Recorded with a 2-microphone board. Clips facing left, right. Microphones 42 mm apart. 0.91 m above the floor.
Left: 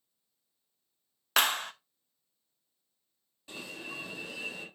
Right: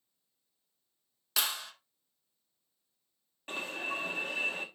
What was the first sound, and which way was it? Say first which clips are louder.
A clap: left 7 dB; 50° left (ahead or behind).